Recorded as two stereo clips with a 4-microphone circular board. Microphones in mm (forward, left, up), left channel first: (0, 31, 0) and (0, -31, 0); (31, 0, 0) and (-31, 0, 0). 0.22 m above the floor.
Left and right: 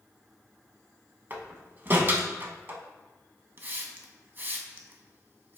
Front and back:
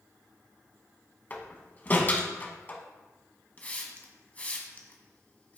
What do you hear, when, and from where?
1.3 s a door slam: 50° right, 1.0 m
3.6 s a hiss: 50° right, 1.0 m